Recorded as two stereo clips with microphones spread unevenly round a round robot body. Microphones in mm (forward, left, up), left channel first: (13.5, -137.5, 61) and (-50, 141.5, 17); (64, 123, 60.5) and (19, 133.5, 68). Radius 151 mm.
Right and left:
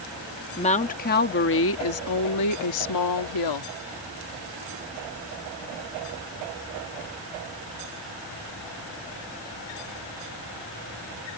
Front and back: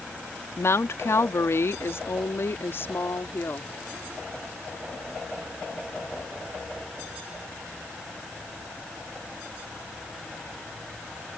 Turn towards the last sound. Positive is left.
turn(degrees=-65)